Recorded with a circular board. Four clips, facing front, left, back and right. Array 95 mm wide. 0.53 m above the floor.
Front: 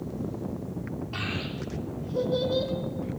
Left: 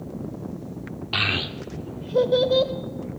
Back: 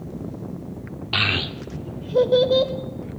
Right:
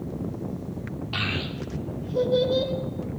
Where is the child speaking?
155° left, 0.7 m; by 2.7 s 140° left, 1.6 m.